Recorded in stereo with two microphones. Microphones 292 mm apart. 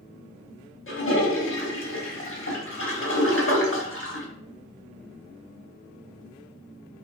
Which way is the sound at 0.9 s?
45° left (ahead or behind).